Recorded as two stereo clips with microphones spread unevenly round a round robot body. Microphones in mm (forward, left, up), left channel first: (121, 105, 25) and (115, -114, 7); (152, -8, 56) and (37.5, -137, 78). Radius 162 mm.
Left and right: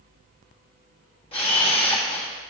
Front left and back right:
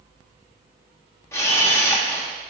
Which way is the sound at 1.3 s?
55° left.